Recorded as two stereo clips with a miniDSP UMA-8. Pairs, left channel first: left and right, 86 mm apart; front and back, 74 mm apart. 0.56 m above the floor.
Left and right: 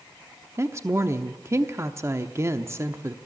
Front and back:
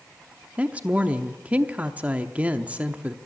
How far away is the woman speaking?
About 0.8 m.